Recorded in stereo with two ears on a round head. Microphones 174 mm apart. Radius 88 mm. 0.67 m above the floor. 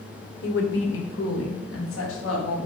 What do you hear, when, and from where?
0.4 s a woman speaking: 65° left (ahead or behind), 1.6 m; by 2.6 s 85° left, 3.5 m